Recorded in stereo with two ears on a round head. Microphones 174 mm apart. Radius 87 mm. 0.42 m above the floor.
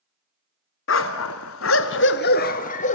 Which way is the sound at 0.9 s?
70° left (ahead or behind).